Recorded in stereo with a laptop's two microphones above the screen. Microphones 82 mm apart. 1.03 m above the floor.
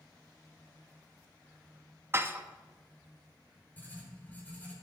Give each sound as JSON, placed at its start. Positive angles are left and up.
{"t": 2.1, "sound": "dishes clattering", "side_deg": -30, "distance_m": 0.9}
{"t": 3.8, "sound": "writing", "side_deg": 20, "distance_m": 4.5}